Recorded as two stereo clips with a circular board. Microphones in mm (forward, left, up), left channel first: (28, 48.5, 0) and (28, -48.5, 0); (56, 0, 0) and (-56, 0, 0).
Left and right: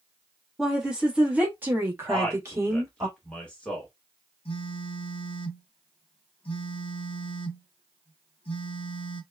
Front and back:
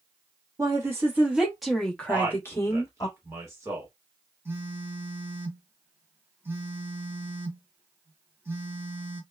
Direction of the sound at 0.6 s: 175° right.